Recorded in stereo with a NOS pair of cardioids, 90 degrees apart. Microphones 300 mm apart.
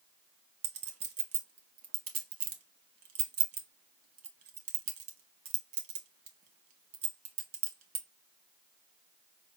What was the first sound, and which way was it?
A clink, 55° right.